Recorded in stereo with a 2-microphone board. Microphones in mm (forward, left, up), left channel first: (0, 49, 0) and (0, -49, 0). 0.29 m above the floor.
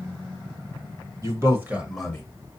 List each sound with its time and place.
1.2 s a man speaking: 35° right (ahead or behind), 1.3 m; by 2.2 s 15° left (ahead or behind), 0.9 m